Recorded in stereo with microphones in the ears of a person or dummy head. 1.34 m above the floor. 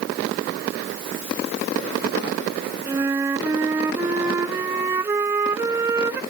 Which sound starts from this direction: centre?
A flute, at 2.9 s.